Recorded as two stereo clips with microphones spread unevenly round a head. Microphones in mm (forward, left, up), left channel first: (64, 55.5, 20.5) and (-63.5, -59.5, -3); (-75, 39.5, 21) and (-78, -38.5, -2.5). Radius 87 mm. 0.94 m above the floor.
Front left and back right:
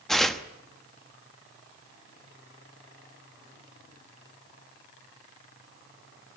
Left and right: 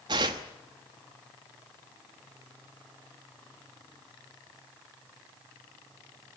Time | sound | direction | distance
0.1 | tearing paper | 50° right | 0.9 m